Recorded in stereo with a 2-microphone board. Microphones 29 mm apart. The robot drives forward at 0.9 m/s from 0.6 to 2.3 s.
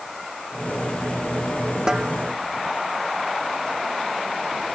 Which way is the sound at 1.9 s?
25° right (ahead or behind).